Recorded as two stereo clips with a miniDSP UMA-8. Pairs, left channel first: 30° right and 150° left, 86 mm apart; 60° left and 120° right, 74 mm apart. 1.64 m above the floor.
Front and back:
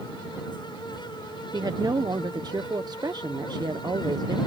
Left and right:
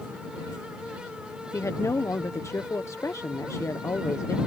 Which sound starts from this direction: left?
A woman speaking, at 1.5 s.